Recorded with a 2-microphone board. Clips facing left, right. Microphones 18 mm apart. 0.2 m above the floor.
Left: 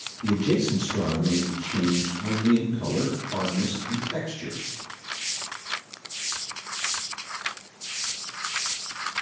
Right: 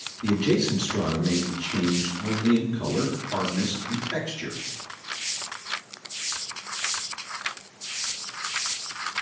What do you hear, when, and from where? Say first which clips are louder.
0.2 s a man speaking: right 1 dB; 35° right (ahead or behind), 3 m